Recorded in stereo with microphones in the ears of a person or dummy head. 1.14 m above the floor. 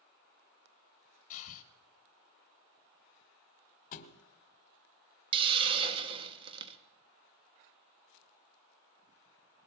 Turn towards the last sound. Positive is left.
turn(degrees=-30)  # may be behind; listen again after turning